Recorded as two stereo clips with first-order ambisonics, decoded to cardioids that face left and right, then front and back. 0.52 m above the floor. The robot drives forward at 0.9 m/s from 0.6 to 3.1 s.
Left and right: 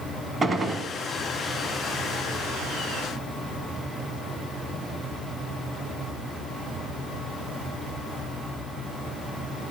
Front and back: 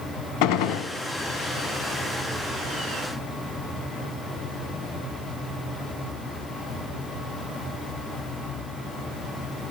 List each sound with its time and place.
0.4 s a gunshot: 15° right, 0.8 m; by 0.9 s 20° right, 0.6 m